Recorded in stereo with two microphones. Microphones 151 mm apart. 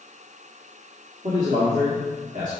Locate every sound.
1.2 s a man speaking: 55° right (ahead or behind), 1.5 m